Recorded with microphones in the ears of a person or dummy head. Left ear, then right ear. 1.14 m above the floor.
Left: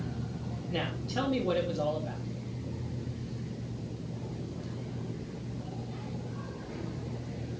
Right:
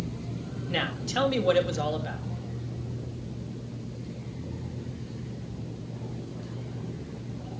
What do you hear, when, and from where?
0.7 s a woman speaking: 60° right (ahead or behind), 2 m